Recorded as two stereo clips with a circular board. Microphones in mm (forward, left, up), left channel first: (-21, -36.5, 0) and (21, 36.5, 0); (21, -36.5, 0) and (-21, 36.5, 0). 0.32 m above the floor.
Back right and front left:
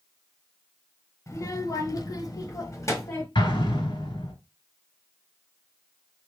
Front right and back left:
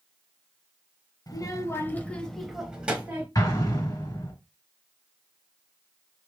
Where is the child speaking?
80° right, 0.9 m; by 3.2 s 175° right, 1.2 m.